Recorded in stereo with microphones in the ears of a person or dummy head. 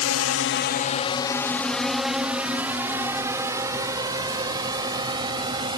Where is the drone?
70° left (ahead or behind); by 5.8 s 25° right (ahead or behind).